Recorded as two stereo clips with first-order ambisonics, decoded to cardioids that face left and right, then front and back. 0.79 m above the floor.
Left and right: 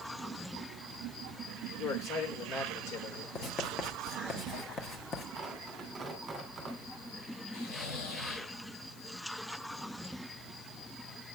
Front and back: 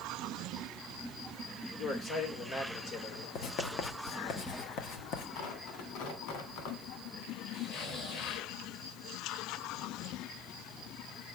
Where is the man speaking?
50° left, 3 m.